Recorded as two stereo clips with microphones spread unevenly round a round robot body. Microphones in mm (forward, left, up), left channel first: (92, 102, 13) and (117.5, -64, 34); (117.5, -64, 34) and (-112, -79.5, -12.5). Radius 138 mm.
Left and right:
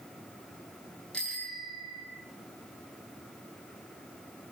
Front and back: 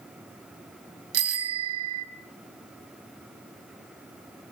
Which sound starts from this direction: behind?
A bicycle bell, at 1.1 s.